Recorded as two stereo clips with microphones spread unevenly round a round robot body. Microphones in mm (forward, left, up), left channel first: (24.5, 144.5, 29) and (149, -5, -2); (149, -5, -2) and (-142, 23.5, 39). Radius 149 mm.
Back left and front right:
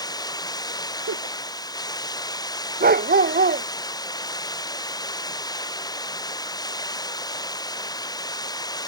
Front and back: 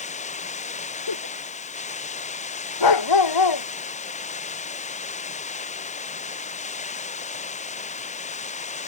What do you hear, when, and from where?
0.0 s running water: 60° left
1.1 s a giggle: 35° right
2.8 s a dog barking: 10° right